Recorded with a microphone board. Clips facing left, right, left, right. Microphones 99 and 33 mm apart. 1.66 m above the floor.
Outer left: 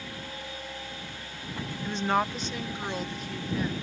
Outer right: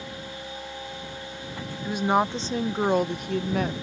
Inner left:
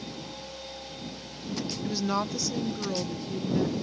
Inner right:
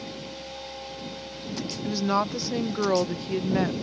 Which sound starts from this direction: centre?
A woman speaking, at 1.9 s.